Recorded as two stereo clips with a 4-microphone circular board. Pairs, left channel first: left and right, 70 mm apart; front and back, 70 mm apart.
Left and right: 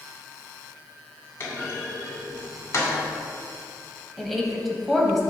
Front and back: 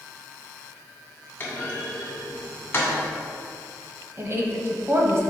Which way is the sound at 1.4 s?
55° left.